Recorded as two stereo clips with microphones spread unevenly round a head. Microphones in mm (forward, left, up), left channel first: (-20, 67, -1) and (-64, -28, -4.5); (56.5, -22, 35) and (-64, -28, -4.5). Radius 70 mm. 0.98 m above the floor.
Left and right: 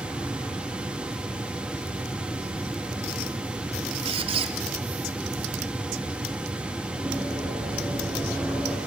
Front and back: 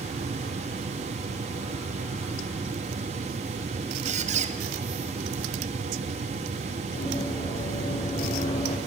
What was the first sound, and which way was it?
A squeak, 140° right.